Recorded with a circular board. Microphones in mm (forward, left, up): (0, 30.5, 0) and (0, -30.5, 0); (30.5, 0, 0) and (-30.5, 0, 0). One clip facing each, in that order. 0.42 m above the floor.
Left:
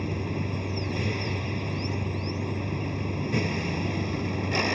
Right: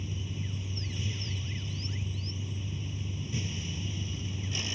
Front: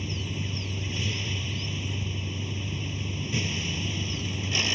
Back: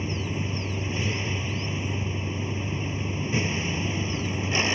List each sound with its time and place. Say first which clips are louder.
0.0 s a vehicle: left 10 dB, back 4 dB; 120° left